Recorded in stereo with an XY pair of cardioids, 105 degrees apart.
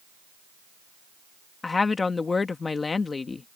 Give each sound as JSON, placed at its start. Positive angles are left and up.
{"t": 1.6, "sound": "a woman speaking", "azimuth_deg": 30}